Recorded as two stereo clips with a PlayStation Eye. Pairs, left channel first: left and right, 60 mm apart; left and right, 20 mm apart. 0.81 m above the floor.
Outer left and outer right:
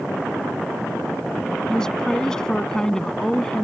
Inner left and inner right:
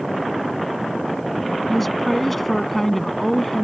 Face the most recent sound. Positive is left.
turn(degrees=10)  # may be behind; listen again after turning